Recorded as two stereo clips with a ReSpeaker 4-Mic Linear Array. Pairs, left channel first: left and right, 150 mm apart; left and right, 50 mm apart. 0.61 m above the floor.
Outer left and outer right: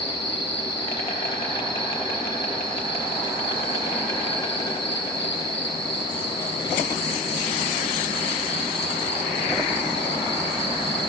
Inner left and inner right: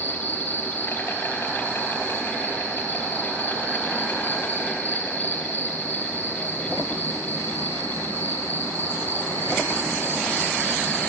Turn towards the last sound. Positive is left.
turn(degrees=40)  # may be behind; listen again after turning